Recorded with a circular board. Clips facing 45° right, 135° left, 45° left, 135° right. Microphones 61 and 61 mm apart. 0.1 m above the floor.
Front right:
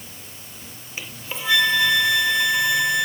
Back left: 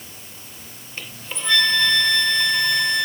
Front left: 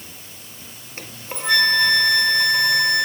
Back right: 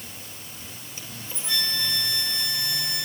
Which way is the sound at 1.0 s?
35° left.